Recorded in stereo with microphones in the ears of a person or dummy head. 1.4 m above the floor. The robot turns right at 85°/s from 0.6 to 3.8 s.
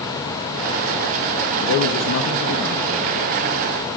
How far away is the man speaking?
About 0.6 m.